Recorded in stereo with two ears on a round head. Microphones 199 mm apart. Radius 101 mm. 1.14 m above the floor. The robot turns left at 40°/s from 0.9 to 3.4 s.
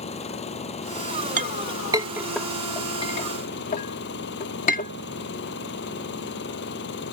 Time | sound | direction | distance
0.0 | an engine running | 150° left | ?
1.4 | a clink | 40° right (ahead or behind) | ?